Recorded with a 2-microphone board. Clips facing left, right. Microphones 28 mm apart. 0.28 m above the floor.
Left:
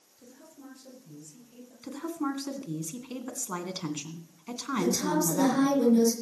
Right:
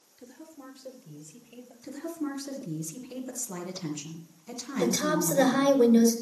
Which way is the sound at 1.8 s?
50° left (ahead or behind).